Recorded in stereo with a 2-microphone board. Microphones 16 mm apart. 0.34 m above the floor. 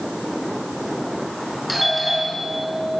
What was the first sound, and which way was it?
A doorbell, centre (ahead or behind).